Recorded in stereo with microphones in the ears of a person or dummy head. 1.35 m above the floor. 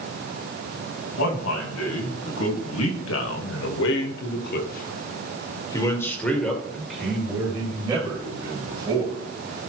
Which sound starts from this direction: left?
A man speaking, at 1.2 s.